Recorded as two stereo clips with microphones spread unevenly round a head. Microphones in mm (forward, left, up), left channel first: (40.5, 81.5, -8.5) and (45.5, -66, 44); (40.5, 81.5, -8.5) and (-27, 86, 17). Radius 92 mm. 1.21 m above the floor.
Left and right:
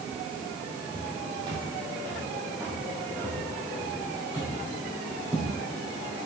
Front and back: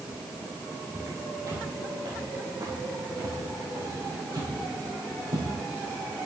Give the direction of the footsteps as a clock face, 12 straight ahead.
5 o'clock.